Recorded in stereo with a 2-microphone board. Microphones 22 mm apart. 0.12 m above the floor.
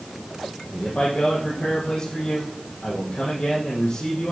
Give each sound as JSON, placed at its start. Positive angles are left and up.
{"t": 0.7, "sound": "a man speaking", "side_deg": 60, "distance_m": 5.0}